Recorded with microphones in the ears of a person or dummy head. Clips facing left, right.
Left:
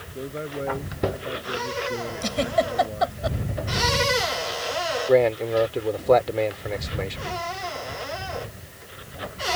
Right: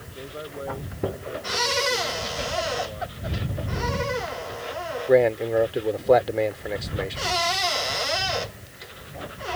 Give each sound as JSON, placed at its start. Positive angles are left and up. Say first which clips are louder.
{"t": 0.1, "sound": "a man speaking", "louder": "left 5 dB", "side_deg": 30}
{"t": 2.2, "sound": "a giggle", "louder": "left 6 dB", "side_deg": 80}
{"t": 5.1, "sound": "a man speaking", "louder": "right 1 dB", "side_deg": -10}